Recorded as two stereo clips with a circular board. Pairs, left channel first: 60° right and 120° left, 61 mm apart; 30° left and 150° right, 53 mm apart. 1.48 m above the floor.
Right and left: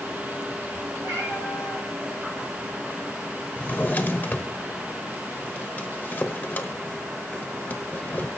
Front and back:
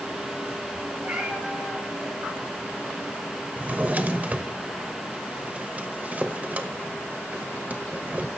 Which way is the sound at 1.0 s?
125° left.